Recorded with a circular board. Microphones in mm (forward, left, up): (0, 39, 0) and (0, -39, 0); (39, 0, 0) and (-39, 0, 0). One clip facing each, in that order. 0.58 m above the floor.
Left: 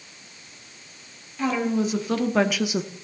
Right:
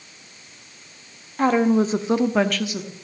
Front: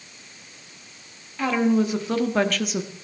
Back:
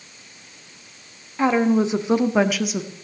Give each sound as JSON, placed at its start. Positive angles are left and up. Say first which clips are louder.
{"t": 1.4, "sound": "a woman speaking", "louder": "right 6 dB, back 3 dB", "azimuth_deg": -120, "distance_m": 1.5}